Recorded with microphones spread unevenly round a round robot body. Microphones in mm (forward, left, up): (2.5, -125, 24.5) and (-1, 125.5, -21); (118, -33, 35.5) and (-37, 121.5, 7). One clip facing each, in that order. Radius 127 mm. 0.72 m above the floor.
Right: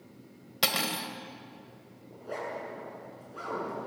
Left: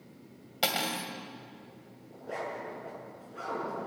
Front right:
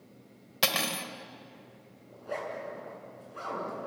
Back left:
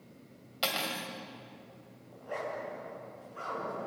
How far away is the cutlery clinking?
About 1.8 m.